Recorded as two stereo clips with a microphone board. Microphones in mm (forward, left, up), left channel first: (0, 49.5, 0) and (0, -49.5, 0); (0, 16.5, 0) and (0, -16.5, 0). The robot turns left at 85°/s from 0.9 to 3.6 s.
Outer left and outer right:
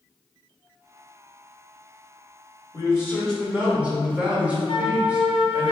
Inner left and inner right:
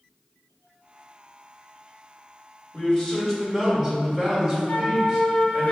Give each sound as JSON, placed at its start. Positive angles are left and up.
{"t": 2.7, "sound": "a man speaking", "azimuth_deg": 55, "distance_m": 1.4}
{"t": 4.7, "sound": "a flute", "side_deg": 60, "distance_m": 0.6}